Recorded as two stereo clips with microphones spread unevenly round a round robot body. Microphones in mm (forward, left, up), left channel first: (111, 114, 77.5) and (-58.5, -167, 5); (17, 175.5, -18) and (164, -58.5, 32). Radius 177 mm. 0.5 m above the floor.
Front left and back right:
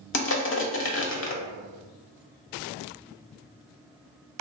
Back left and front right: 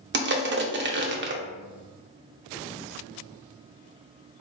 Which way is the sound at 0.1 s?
Straight ahead.